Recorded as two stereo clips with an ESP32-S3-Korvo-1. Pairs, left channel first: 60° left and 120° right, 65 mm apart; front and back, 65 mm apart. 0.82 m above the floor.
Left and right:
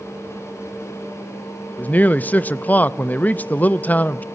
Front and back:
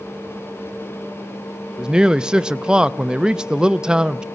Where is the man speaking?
110° left, 0.6 m.